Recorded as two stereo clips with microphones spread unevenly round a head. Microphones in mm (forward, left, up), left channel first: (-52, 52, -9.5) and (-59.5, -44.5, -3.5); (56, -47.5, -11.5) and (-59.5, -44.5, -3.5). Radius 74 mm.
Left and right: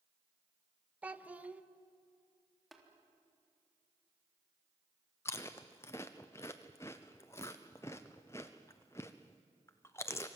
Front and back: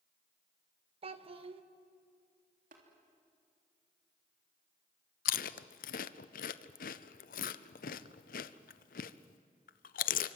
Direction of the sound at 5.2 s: 10° left.